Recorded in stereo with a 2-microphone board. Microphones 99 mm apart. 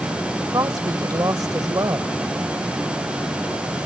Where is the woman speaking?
40° right (ahead or behind).